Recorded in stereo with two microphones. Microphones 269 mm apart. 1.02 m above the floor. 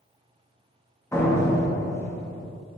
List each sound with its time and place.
1.1 s a door slam: 10° left (ahead or behind), 0.8 m